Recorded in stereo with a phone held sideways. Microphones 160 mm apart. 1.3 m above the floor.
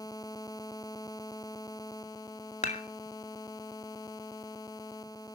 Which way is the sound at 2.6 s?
45° left (ahead or behind).